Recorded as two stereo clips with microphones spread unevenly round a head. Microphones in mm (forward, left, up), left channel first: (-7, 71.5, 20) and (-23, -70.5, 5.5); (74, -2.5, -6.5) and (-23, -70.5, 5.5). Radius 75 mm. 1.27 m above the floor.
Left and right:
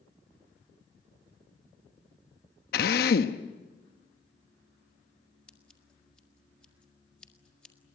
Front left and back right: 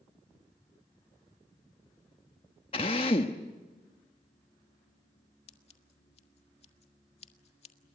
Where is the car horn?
I don't hear a car horn.